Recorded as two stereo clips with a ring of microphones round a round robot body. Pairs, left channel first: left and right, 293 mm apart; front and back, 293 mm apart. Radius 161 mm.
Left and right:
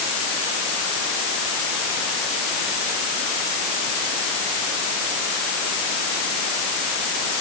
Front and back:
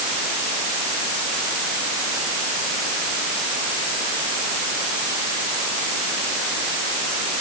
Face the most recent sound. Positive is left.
No sound to turn to.